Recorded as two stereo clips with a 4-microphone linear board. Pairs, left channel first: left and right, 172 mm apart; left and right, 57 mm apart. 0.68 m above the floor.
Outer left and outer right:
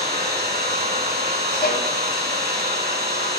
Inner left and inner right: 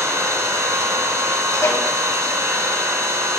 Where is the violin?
60° left (ahead or behind), 1.3 m.